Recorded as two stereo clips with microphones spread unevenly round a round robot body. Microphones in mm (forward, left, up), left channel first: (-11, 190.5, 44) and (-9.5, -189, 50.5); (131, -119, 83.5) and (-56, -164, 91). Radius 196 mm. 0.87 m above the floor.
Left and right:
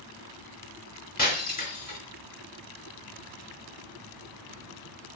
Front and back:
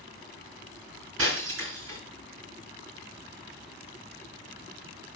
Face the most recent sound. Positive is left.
turn(degrees=160)